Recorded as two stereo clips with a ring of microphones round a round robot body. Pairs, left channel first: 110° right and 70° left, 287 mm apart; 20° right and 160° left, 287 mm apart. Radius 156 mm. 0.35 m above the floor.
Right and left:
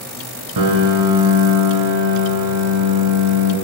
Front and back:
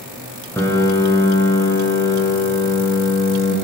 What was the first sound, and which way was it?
A piano, 60° left.